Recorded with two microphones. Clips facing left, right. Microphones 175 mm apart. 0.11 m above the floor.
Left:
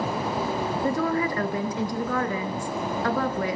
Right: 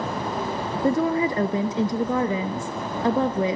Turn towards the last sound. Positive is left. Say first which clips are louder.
# right 5 dB
turn(degrees=-25)  # may be behind; listen again after turning